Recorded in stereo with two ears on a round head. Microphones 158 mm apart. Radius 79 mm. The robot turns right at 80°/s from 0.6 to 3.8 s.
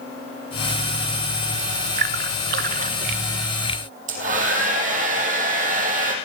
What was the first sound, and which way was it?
A splash, 55° right (ahead or behind).